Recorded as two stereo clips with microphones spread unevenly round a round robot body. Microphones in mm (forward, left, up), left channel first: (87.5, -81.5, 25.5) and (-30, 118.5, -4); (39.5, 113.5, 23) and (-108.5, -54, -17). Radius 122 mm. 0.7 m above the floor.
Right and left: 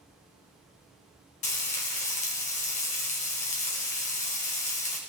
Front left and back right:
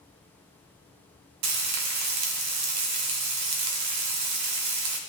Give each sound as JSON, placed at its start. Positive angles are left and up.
{"t": 1.4, "sound": "frying", "azimuth_deg": -125, "distance_m": 1.5}